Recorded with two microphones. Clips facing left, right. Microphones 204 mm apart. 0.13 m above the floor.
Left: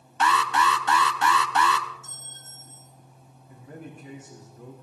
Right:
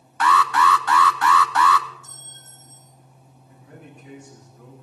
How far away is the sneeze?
No sneeze in this recording.